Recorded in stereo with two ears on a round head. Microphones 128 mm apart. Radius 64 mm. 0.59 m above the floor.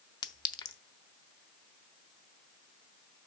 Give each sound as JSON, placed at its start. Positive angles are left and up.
{"t": 0.2, "sound": "a clink", "side_deg": 30, "distance_m": 0.5}